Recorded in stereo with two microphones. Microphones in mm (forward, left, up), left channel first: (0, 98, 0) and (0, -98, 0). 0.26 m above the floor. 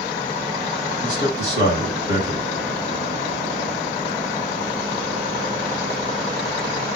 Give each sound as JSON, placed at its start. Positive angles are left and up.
{"t": 1.0, "sound": "a man speaking", "side_deg": 40, "distance_m": 2.0}